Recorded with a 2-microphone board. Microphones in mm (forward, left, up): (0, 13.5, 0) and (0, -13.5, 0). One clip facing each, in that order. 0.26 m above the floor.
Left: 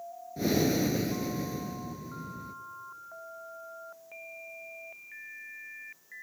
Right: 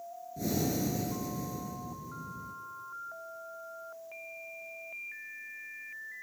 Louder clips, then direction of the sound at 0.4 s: Left 5 dB; 40° left (ahead or behind).